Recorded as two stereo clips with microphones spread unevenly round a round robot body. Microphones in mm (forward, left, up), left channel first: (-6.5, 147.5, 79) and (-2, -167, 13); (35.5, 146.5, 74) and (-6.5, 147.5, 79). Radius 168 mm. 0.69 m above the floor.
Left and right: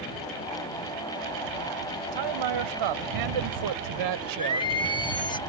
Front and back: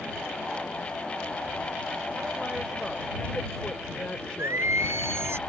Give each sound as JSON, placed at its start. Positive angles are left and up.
{"t": 2.1, "sound": "a man speaking", "azimuth_deg": -100}
{"t": 4.4, "sound": "singing", "azimuth_deg": 170}